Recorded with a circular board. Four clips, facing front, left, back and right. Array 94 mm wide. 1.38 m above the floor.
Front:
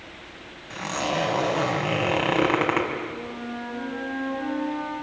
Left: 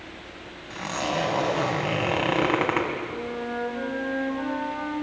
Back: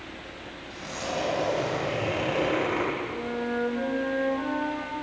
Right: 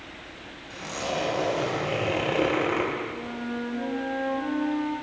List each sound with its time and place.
0.7 s a zipper: 40° left, 5.5 m
3.1 s a flute: 135° left, 7.5 m